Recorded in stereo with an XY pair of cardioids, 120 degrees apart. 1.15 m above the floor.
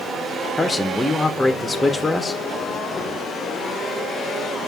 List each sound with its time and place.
0.6 s a man speaking: 10° left, 0.5 m